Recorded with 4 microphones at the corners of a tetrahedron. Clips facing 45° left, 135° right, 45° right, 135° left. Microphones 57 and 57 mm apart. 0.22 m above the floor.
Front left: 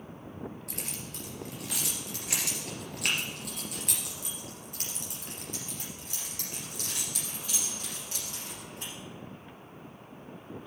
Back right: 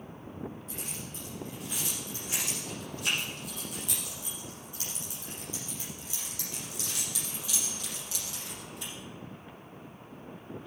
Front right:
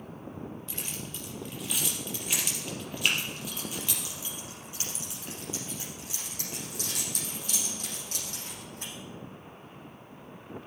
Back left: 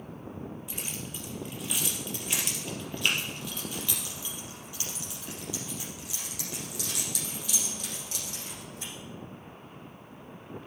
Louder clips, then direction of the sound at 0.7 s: Even, back left 1 dB; 60° left.